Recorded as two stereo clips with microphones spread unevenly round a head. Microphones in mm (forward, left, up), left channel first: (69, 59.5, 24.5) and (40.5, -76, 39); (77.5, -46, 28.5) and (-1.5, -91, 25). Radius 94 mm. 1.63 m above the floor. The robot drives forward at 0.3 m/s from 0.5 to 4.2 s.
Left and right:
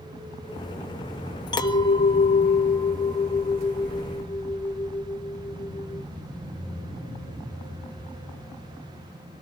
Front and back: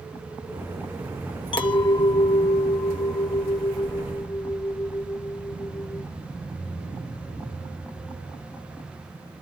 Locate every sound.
1.5 s a clink: 20° left, 1.3 m; by 6.1 s 55° left, 0.8 m